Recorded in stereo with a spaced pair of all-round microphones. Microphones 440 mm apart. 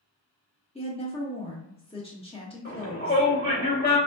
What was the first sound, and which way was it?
A woman speaking, 15° left (ahead or behind).